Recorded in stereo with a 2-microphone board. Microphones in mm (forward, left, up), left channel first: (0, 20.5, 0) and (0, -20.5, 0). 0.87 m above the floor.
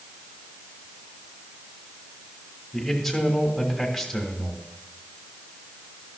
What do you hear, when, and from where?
2.7 s a man speaking: centre (ahead or behind), 1.5 m